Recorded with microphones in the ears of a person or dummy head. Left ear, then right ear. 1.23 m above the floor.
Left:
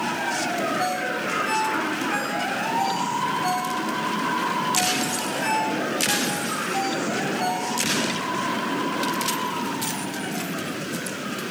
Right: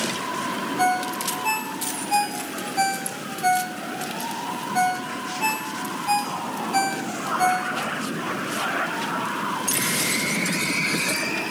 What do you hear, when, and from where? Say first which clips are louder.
0.8 s a ringtone: right 2 dB; 45° right (ahead or behind), 3.5 m